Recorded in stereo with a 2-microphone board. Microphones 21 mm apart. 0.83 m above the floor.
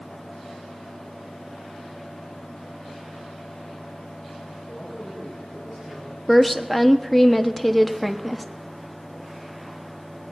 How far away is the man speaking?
About 8 m.